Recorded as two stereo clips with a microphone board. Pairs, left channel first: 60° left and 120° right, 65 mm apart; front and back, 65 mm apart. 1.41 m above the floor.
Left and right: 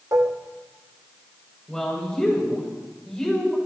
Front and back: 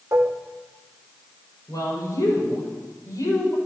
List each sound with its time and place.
0.1 s dishes clattering: 140° right, 1.4 m
1.7 s a woman speaking: 15° right, 6.5 m